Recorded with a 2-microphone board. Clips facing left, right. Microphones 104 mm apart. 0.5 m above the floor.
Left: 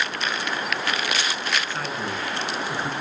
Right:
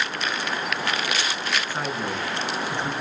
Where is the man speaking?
15° right (ahead or behind), 5 m; by 2.9 s 10° left (ahead or behind), 5.5 m.